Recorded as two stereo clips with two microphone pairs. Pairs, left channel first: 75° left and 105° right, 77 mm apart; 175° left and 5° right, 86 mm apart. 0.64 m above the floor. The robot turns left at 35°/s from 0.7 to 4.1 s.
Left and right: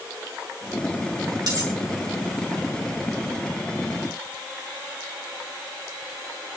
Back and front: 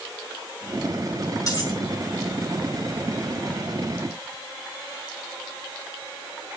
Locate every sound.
1.5 s cutlery clinking: 140° right, 4.5 m; by 1.8 s 150° right, 4.5 m